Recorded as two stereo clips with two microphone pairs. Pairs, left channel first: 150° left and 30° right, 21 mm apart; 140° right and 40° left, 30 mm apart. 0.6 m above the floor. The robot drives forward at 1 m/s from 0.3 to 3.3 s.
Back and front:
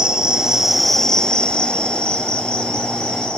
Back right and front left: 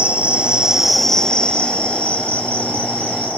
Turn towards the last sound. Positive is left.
turn(degrees=180)